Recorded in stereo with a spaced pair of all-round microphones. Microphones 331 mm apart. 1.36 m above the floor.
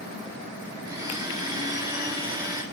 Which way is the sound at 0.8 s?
10° right (ahead or behind).